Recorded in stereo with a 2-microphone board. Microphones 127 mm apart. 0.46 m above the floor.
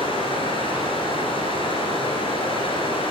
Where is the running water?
45° left (ahead or behind), 0.8 m.